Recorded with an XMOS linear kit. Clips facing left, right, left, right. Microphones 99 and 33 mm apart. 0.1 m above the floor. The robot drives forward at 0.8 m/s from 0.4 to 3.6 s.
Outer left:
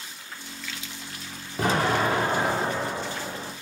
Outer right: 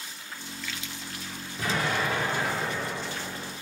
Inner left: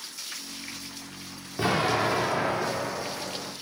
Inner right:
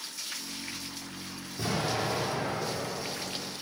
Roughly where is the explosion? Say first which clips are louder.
Outer left 5 dB, inner left 6 dB; left.